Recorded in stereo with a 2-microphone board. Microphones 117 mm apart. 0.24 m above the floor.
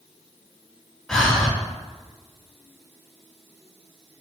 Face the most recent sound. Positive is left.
turn(degrees=5)  # may be behind; listen again after turning